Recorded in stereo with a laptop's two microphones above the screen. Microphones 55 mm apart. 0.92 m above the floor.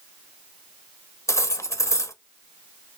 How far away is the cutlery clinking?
About 0.6 m.